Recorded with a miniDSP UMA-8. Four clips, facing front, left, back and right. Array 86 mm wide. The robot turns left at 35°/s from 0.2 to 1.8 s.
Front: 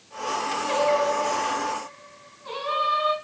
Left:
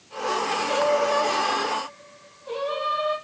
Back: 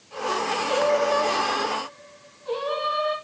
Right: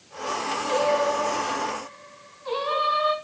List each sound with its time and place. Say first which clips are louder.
0.7 s singing: even, back 1 dB; 10° right, 1.9 m; by 3.1 s 50° right, 1.9 m